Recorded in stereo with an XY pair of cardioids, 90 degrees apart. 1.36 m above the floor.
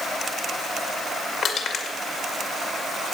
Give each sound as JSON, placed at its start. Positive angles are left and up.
{"t": 1.4, "sound": "crushing", "azimuth_deg": 60, "distance_m": 2.0}